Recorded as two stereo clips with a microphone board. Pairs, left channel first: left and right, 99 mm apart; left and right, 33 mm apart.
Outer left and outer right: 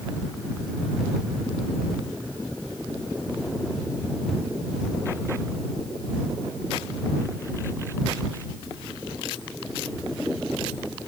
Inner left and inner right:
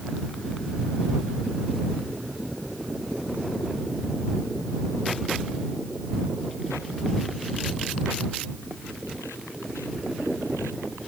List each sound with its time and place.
Only background noise.